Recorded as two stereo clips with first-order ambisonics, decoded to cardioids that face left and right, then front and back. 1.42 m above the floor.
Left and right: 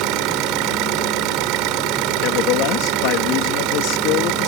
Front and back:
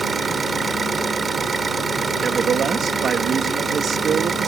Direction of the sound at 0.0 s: 105° right.